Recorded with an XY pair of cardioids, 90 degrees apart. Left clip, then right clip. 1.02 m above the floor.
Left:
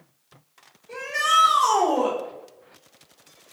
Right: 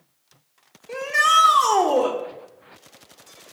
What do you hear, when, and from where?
0.9 s a shout: 60° right, 3.5 m